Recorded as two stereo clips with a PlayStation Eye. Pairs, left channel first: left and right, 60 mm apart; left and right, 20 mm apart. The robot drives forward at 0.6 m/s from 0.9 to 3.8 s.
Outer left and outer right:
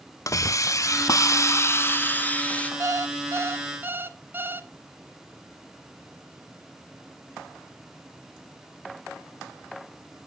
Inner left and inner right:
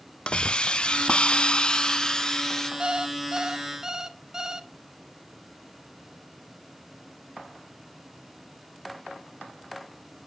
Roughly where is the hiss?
Left.